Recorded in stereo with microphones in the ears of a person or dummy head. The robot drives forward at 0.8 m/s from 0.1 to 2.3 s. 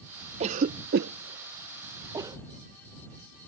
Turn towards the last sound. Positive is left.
turn(degrees=-20)  # may be behind; listen again after turning